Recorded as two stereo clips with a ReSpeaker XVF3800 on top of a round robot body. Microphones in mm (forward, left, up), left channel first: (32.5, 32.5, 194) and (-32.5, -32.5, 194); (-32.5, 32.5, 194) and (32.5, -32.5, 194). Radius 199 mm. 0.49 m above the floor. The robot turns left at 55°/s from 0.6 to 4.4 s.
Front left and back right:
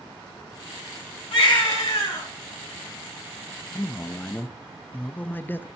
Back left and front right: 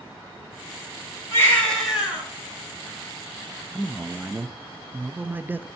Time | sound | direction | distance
1.3 | a baby crying | 75° left | 3.5 m
3.7 | a man speaking | 35° left | 0.7 m